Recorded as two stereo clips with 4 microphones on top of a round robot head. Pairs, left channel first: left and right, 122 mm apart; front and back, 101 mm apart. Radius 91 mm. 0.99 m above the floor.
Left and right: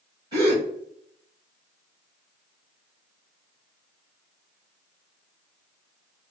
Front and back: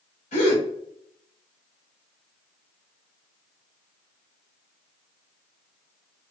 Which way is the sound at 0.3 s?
25° right.